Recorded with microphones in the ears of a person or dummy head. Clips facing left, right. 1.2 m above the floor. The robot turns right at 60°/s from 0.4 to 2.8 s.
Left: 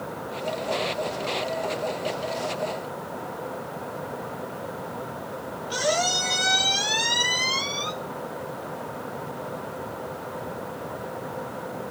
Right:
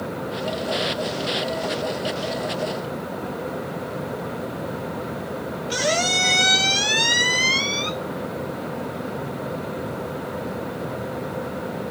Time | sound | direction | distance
5.7 | a squeak | 25° right (ahead or behind) | 0.7 m